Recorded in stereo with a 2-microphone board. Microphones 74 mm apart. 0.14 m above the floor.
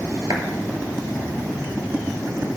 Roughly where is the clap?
Right.